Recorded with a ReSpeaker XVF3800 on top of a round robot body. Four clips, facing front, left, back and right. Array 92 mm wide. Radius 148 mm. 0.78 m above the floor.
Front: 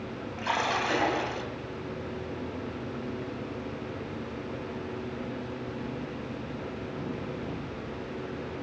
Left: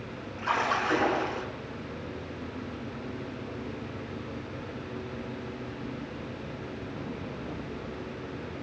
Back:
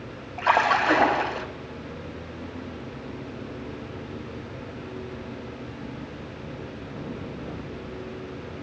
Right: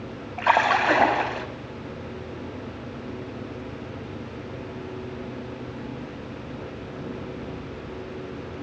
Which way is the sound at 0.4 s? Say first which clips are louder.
Right 8 dB, back 8 dB; 125° right.